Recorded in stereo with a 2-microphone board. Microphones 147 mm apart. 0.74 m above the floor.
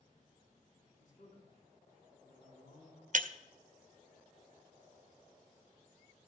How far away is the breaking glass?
About 0.5 m.